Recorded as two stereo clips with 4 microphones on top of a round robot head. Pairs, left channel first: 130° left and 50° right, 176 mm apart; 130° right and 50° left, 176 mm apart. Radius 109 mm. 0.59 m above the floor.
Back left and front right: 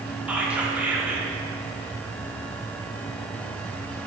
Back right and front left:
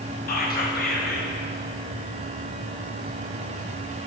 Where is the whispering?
135° right, 1.5 m.